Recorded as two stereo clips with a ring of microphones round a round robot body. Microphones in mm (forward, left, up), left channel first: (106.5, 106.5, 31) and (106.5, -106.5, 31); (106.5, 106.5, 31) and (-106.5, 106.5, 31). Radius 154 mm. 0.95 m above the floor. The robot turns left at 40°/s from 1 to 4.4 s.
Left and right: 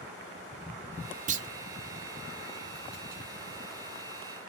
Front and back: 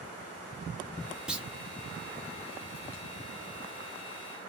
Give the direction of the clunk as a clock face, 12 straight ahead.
3 o'clock.